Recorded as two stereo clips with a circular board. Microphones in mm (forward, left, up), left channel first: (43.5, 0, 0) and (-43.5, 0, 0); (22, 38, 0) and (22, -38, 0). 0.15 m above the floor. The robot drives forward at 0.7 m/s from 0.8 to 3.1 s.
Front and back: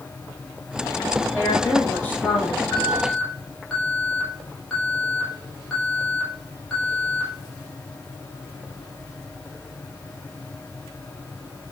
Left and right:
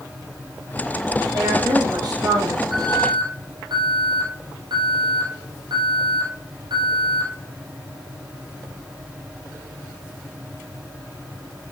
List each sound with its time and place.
1.3 s a woman speaking: 65° right, 7 m; by 2.6 s 75° right, 6.5 m
2.7 s an alarm: 75° right, 5.5 m; by 7.3 s 80° right, 5.5 m